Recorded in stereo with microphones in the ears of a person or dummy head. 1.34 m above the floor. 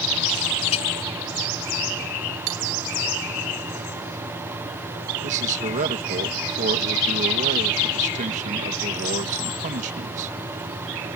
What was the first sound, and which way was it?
A clink, 35° left (ahead or behind).